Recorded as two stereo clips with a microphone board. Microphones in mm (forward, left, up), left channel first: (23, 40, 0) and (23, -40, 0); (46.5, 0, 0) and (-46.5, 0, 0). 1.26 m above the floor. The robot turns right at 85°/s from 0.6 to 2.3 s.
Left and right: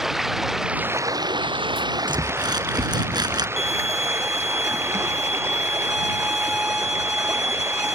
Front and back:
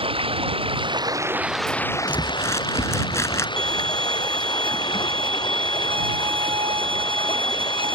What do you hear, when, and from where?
0.0 s running water: 175° right; by 8.0 s 30° right
2.1 s crumpling: 80° right; by 3.5 s 60° right
3.6 s a violin: 175° right